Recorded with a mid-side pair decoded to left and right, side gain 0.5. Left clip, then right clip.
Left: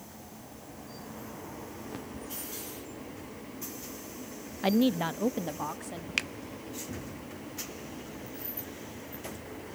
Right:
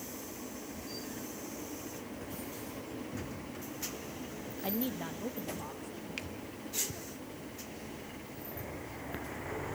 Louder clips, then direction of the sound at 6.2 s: Left 12 dB; 65° left.